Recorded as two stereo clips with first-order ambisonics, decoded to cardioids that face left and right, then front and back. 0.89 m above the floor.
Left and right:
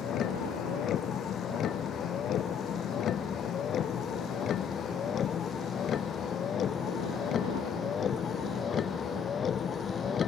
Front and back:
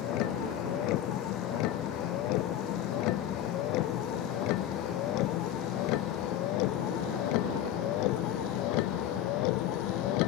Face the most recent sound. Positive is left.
turn(degrees=20)